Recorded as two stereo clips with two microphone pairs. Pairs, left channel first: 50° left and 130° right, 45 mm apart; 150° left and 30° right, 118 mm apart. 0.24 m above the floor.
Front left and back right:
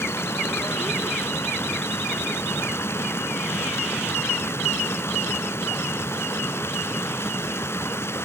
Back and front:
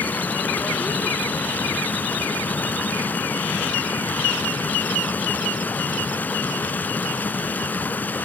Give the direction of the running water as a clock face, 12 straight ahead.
10 o'clock.